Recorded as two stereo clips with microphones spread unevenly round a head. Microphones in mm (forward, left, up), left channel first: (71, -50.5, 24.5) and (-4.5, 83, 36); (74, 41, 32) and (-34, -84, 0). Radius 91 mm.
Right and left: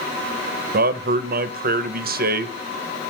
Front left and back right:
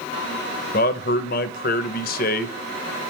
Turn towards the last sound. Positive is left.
turn(degrees=95)